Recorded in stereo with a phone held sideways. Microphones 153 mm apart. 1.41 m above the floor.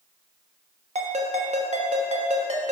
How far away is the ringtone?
About 1.2 m.